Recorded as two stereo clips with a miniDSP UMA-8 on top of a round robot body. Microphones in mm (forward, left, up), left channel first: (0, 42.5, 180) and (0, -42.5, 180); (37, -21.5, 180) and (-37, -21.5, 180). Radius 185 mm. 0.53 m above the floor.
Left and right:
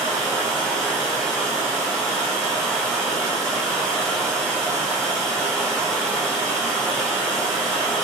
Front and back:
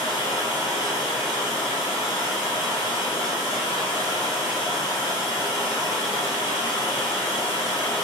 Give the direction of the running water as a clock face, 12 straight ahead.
12 o'clock.